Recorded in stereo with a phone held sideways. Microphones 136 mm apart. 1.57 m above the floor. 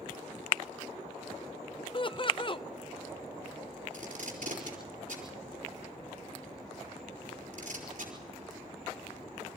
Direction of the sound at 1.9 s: 35° left (ahead or behind).